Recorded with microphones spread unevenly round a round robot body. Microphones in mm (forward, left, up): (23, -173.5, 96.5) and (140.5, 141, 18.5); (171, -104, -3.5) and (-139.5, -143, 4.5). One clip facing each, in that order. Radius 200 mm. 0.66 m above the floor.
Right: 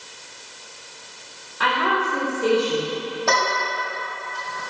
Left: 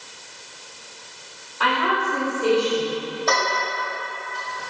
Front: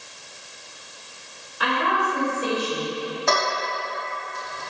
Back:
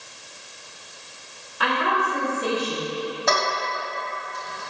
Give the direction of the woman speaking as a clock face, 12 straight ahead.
6 o'clock.